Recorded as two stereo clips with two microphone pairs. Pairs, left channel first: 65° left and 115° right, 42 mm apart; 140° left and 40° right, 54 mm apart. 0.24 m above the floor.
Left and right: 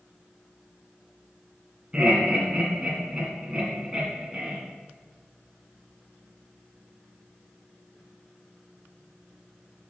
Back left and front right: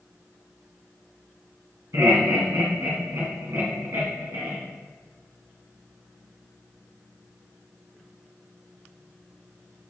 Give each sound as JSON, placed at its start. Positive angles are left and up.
{"t": 1.9, "sound": "laughter", "azimuth_deg": -40, "distance_m": 2.0}